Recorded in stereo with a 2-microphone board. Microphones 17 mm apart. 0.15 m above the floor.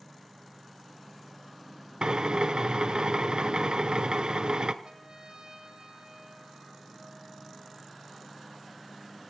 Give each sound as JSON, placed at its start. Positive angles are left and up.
{"t": 2.0, "sound": "a drill", "side_deg": -55, "distance_m": 0.8}
{"t": 4.8, "sound": "a trumpet", "side_deg": -55, "distance_m": 2.5}